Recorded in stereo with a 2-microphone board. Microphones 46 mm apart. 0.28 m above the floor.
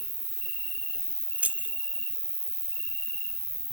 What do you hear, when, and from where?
0.0 s an insect: 40° left (ahead or behind), 2.5 m
1.4 s keys jangling: 35° right (ahead or behind), 0.8 m